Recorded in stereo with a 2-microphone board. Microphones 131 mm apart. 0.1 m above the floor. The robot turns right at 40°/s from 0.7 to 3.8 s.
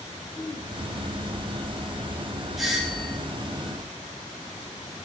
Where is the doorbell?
Centre (ahead or behind), 1.7 m; by 3.2 s 10° right (ahead or behind), 1.7 m.